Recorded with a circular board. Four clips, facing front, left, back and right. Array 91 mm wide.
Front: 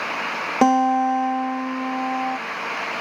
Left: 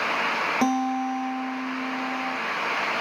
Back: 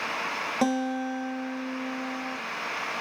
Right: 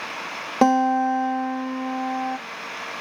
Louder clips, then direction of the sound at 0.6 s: Right 9 dB, front 11 dB; 40° right.